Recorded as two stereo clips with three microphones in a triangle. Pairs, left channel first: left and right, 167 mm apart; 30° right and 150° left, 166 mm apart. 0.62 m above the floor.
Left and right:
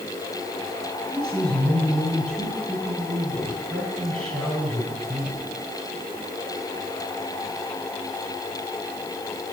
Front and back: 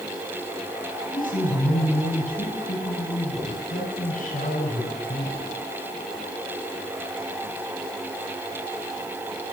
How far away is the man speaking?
About 8 m.